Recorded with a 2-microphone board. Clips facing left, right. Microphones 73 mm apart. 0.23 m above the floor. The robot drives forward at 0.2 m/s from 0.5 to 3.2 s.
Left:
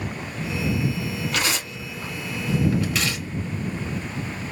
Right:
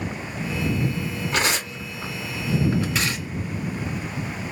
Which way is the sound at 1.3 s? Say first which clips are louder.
Right 5 dB; 30° right (ahead or behind).